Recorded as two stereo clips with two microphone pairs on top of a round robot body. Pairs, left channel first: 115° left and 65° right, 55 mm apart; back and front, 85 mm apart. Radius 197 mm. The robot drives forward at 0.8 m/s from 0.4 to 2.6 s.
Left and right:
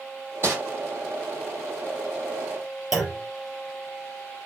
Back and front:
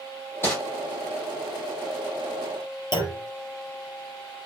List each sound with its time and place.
0.4 s crumpling: 115° right, 6 m
2.9 s a clunk: 150° right, 4 m